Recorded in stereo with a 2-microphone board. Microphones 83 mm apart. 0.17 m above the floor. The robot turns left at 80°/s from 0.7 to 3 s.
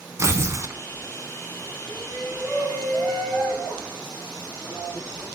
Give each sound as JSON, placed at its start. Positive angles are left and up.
{"t": 0.2, "sound": "tearing paper", "side_deg": -35, "distance_m": 0.5}
{"t": 1.9, "sound": "a shout", "azimuth_deg": -110, "distance_m": 4.5}